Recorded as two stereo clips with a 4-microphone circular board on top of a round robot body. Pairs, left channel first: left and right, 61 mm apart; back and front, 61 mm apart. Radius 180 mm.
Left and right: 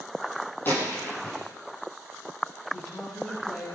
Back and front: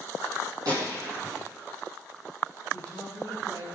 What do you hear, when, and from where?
0.7 s a gunshot: 30° left, 5 m
2.7 s a woman speaking: 25° left, 7 m